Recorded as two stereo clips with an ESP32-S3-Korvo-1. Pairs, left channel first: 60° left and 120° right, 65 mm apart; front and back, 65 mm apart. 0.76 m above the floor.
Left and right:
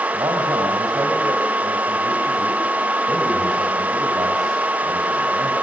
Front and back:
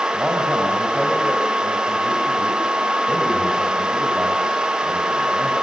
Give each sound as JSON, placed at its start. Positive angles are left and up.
{"t": 0.1, "sound": "a man speaking", "azimuth_deg": -100, "distance_m": 5.0}